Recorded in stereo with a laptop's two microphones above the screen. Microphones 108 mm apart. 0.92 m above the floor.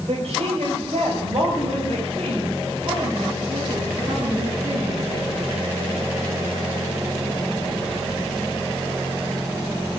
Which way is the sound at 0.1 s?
70° right (ahead or behind).